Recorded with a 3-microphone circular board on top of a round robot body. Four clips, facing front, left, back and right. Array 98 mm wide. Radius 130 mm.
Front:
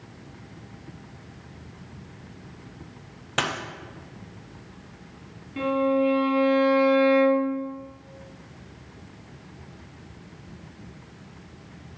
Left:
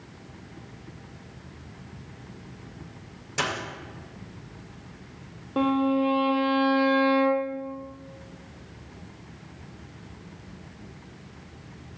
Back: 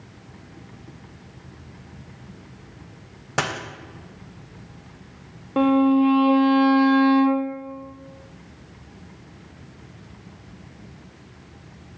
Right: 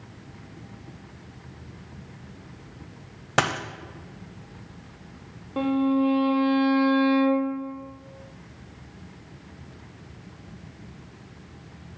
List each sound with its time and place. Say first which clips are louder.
3.4 s a dropped coin: right 6 dB, back 2 dB; 105° right, 1.0 m
5.6 s a violin: right 1 dB, back 6 dB; 165° left, 0.6 m